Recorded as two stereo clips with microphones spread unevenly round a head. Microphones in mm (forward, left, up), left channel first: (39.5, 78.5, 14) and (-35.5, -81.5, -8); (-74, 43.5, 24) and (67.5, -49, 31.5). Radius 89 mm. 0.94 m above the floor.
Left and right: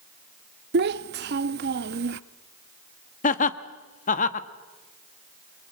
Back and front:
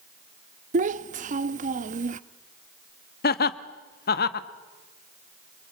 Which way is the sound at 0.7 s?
80° right.